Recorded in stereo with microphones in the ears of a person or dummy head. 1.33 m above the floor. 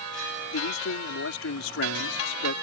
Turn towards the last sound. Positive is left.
turn(degrees=70)  # may be behind; listen again after turning